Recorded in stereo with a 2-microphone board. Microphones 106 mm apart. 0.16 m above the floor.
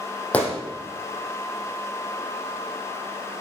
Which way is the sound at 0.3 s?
15° left (ahead or behind).